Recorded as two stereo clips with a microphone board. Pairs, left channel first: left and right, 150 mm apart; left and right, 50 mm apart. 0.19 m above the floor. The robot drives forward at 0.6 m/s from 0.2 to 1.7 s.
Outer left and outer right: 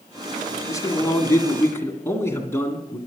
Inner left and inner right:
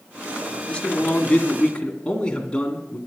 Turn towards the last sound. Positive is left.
turn(degrees=20)  # may be behind; listen again after turning